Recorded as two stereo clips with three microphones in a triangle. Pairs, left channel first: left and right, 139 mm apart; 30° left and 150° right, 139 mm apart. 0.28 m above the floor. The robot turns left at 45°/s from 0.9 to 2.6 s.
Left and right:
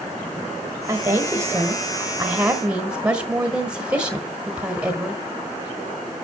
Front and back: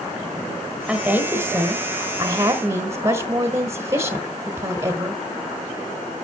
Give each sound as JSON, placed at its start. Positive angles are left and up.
{"t": 0.9, "sound": "a woman speaking", "azimuth_deg": -85, "distance_m": 1.4}